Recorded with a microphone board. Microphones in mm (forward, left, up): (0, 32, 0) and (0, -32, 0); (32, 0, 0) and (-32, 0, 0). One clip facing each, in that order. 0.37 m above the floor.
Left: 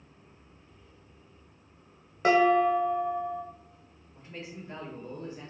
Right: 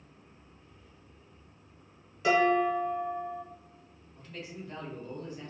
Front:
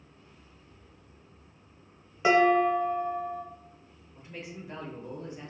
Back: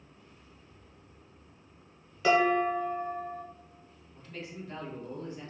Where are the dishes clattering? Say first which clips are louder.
Left 3 dB, front 3 dB; 60° left, 1.0 m.